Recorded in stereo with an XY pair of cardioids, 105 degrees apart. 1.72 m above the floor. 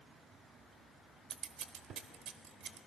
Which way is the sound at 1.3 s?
70° right.